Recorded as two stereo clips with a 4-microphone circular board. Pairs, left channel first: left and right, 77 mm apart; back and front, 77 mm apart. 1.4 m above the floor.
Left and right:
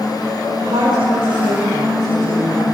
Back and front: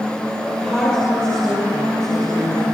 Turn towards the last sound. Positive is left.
turn(degrees=-100)